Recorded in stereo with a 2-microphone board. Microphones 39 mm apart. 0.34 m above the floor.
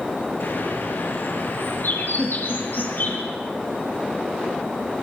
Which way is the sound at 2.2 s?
20° right (ahead or behind).